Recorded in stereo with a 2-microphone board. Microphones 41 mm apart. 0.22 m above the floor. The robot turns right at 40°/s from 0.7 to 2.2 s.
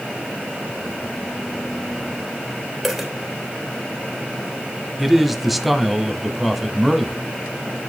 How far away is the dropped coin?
About 2.5 m.